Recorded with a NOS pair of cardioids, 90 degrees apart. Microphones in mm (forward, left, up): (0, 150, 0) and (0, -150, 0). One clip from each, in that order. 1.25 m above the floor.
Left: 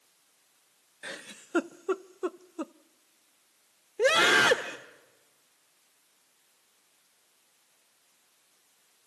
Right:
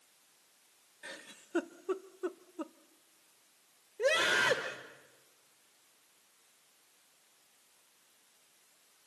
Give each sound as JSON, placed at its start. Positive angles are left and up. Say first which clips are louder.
{"t": 1.0, "sound": "a giggle", "louder": "left 6 dB", "azimuth_deg": 30, "distance_m": 0.5}
{"t": 4.0, "sound": "a scream", "louder": "left 7 dB", "azimuth_deg": 65, "distance_m": 1.2}